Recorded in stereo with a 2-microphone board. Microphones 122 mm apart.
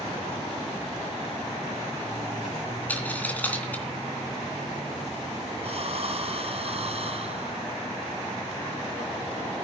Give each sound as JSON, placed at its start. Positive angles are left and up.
{"t": 2.9, "sound": "a dropped coin", "side_deg": 15, "distance_m": 2.5}
{"t": 5.6, "sound": "breathing", "side_deg": -55, "distance_m": 1.7}